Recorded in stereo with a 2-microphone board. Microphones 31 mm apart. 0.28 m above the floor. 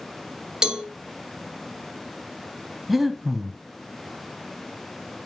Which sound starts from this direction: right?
A cowbell, at 0.6 s.